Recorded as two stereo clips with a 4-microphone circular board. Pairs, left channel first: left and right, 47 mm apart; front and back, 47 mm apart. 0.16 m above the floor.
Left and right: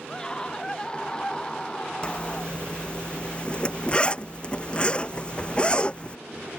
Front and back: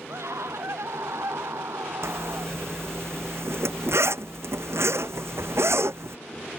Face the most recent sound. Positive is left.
turn(degrees=155)